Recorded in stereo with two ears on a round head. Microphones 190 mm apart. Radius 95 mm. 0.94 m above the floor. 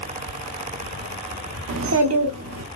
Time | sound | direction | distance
1.7 | a child speaking | 65° right (ahead or behind) | 1.1 m